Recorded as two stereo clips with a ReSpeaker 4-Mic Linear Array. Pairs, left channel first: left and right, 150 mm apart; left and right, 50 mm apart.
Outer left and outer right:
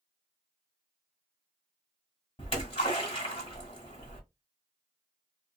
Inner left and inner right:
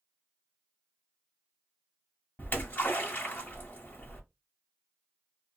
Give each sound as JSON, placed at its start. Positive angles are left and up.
{"t": 2.4, "sound": "a splash", "side_deg": 40, "distance_m": 1.7}